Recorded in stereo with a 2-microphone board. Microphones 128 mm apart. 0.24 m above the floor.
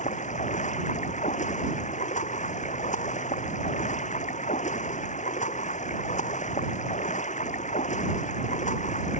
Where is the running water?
70° left (ahead or behind).